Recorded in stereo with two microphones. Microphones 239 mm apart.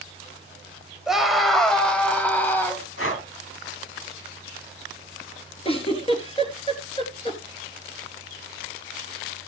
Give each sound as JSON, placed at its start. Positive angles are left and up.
{"t": 1.1, "sound": "a scream", "side_deg": 0, "distance_m": 2.5}
{"t": 3.0, "sound": "breathing", "side_deg": 75, "distance_m": 2.5}
{"t": 5.7, "sound": "a giggle", "side_deg": 25, "distance_m": 3.0}